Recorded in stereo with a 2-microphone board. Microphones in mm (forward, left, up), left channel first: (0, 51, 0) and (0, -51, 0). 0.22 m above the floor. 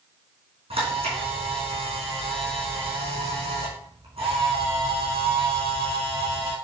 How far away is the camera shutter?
About 3.5 m.